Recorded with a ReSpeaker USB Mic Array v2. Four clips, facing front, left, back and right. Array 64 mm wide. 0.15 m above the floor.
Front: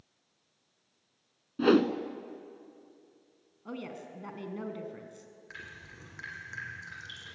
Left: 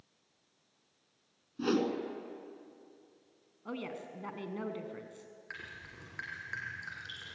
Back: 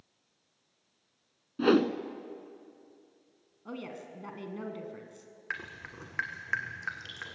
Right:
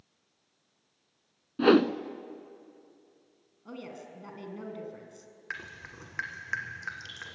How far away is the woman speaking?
About 1.6 m.